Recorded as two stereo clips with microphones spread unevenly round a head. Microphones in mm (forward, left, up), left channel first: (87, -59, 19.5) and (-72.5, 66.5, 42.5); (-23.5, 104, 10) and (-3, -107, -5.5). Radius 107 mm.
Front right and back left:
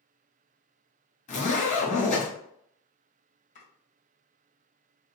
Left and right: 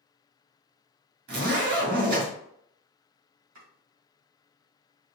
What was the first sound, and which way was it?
A zipper, 90° right.